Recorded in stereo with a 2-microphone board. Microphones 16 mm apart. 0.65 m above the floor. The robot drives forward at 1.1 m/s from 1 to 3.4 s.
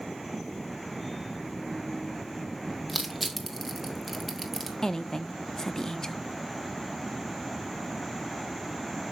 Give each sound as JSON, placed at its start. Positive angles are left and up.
{"t": 2.9, "sound": "crushing", "side_deg": -5, "distance_m": 2.5}
{"t": 4.8, "sound": "a woman speaking", "side_deg": 35, "distance_m": 0.8}